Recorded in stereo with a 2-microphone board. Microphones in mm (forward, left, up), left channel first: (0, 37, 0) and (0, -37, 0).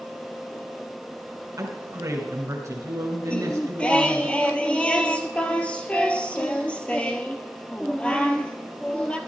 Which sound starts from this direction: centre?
Singing, at 3.3 s.